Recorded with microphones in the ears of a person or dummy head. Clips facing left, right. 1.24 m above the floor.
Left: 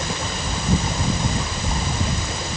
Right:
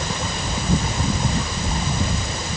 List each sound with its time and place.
Only background noise.